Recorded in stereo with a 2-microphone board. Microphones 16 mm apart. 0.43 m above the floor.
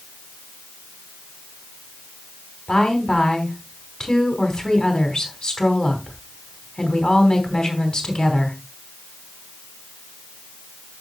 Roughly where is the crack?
I don't hear a crack.